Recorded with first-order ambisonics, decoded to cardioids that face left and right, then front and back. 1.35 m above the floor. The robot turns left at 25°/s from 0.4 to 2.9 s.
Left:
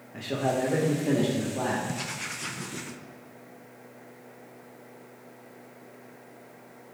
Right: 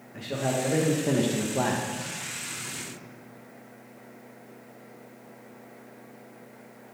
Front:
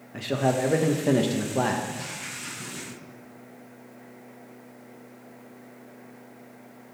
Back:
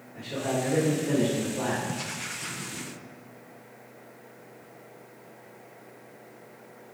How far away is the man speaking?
About 1.0 m.